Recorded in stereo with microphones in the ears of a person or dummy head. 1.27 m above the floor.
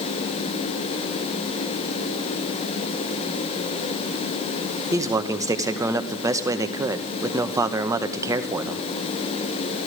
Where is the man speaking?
15° right (ahead or behind), 0.9 m.